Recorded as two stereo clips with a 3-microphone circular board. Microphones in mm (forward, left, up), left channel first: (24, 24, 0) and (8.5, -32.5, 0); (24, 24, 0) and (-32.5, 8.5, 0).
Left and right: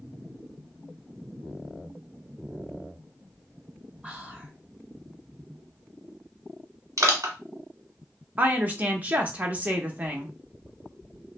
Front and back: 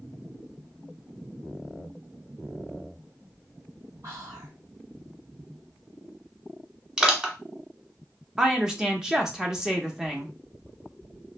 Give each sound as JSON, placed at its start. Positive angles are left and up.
{"t": 4.0, "sound": "whispering", "azimuth_deg": -175, "distance_m": 2.0}
{"t": 7.0, "sound": "crushing", "azimuth_deg": -90, "distance_m": 1.2}
{"t": 8.4, "sound": "a woman speaking", "azimuth_deg": -100, "distance_m": 0.7}